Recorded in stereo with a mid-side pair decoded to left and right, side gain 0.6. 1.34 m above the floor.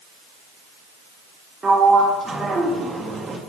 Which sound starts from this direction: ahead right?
A sliding door, at 1.6 s.